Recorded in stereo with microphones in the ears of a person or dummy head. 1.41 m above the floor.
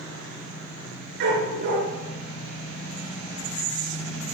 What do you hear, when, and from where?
1.2 s a dog barking: 55° right (ahead or behind), 7 m